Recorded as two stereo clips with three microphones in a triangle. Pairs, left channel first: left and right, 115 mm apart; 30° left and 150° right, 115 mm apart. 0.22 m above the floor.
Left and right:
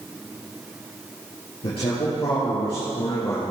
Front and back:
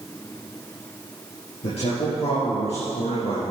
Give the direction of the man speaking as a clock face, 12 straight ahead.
10 o'clock.